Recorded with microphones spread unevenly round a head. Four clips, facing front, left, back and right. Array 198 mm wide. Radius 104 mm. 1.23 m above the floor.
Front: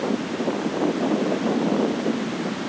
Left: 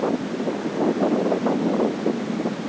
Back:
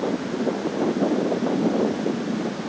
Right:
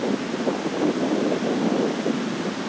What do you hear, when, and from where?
Only background noise.